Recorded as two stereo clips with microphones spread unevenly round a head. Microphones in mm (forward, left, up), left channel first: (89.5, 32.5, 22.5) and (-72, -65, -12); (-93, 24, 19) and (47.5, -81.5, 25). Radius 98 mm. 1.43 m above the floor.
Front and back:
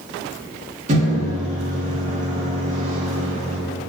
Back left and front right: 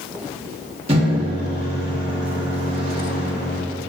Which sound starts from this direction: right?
A microwave, at 0.9 s.